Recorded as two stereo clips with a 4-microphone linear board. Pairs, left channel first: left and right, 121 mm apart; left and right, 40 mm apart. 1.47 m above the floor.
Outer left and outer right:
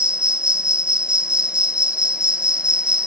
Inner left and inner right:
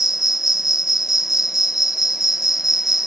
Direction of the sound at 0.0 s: 10° right (ahead or behind).